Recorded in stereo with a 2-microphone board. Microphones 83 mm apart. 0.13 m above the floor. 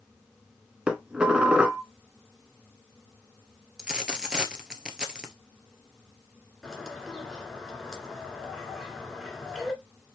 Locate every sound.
0.9 s dishes clattering: 10° right (ahead or behind), 0.9 m
3.8 s a dropped coin: 10° right (ahead or behind), 0.8 m
6.6 s a bird: 5° left (ahead or behind), 1.8 m